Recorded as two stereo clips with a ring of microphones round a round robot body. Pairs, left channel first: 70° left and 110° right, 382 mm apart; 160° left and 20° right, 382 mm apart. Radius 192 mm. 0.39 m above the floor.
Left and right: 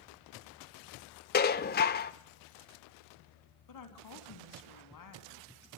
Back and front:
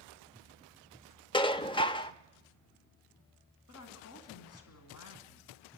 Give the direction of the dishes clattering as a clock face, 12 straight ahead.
9 o'clock.